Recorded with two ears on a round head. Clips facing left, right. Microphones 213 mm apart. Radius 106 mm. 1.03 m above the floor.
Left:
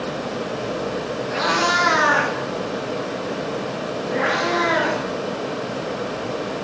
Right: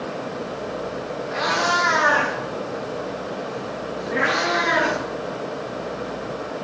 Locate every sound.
1.3 s a cat meowing: 45° left (ahead or behind), 2.5 m; by 5.0 s 40° right (ahead or behind), 3 m